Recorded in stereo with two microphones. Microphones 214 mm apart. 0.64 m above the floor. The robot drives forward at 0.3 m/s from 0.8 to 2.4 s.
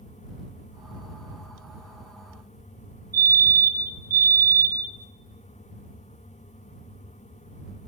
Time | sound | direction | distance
3.1 | a fire alarm | 15° right (ahead or behind) | 2.5 m